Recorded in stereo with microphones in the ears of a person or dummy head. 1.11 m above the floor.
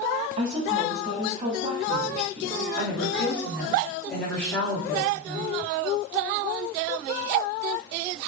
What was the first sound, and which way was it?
A woman speaking, 35° right (ahead or behind).